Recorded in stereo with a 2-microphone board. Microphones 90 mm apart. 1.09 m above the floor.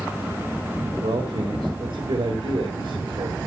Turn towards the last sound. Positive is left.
turn(degrees=-85)